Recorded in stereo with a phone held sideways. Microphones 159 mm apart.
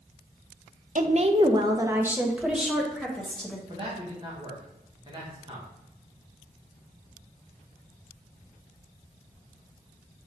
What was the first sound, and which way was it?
A woman speaking, 55° right (ahead or behind).